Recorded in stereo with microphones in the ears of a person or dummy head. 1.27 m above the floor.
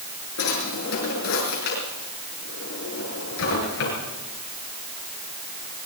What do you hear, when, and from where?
0.4 s a drawer: 80° left, 7.5 m